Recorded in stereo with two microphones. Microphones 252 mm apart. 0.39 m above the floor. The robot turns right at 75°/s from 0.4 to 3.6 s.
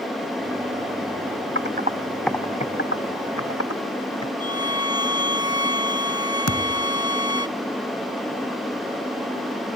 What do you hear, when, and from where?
1.6 s typing on a keyboard: 50° right (ahead or behind); by 4.3 s 75° left (ahead or behind)
4.4 s a violin: 70° left (ahead or behind)
6.5 s a thud: 80° left